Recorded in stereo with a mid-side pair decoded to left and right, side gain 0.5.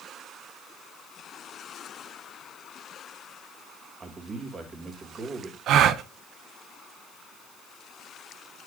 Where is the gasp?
65° right, 0.6 m.